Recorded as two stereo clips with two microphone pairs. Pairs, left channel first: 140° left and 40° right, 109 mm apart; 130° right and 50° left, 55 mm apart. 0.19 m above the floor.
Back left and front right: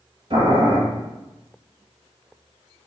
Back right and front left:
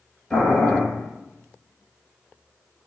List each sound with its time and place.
0.3 s boiling: 65° right, 1.5 m